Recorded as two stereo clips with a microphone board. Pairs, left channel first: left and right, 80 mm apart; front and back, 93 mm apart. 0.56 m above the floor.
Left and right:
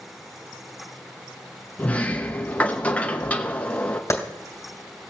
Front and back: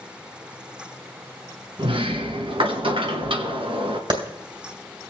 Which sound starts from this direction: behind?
A sliding door, at 1.8 s.